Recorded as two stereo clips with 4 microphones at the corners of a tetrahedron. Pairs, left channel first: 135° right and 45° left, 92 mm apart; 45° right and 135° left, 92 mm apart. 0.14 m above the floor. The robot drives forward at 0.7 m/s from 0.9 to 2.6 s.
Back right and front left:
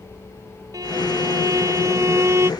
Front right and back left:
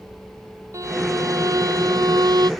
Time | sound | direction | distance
0.7 | a violin | 85° left | ?